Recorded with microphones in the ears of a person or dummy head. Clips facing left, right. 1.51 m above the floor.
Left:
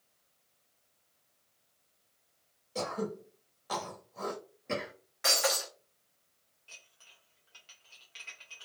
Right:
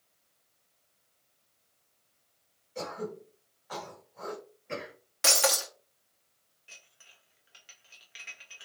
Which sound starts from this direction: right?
Breaking glass, at 5.2 s.